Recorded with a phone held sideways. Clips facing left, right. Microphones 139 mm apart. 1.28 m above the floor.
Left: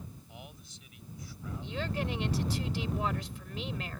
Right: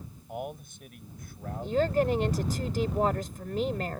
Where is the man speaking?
55° right (ahead or behind).